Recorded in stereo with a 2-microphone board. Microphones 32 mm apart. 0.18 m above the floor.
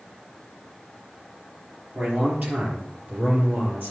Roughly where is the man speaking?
Right.